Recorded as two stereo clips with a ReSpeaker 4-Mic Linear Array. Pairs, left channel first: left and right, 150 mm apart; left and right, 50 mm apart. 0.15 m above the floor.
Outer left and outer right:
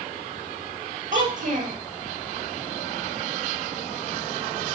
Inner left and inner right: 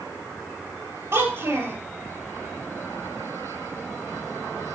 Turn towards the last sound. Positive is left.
turn(degrees=-60)  # may be behind; listen again after turning